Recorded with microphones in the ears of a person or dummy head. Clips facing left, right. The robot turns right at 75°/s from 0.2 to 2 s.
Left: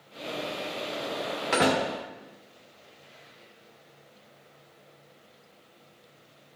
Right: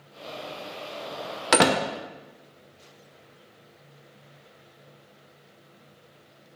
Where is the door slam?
65° right (ahead or behind), 0.6 m; by 1.8 s 55° right (ahead or behind), 0.6 m.